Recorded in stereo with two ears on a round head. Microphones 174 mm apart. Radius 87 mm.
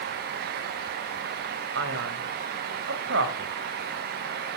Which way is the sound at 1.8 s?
65° right (ahead or behind).